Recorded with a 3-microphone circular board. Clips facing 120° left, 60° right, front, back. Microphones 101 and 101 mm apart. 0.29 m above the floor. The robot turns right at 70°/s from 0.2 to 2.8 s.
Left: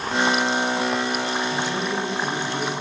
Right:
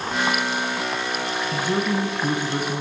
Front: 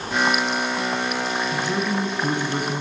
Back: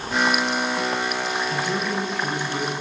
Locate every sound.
1.5 s a man speaking: 105° right, 2 m; by 2.8 s 15° right, 2 m